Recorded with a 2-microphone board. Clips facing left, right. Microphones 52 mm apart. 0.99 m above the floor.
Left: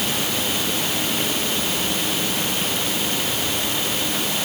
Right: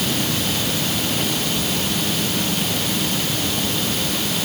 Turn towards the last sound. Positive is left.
No sound to turn to.